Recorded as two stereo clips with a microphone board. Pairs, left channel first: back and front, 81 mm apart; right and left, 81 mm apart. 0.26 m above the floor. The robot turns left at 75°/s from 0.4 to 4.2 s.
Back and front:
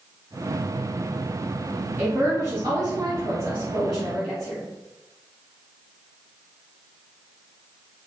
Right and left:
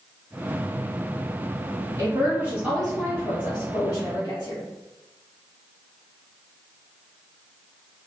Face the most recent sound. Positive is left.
turn(degrees=-95)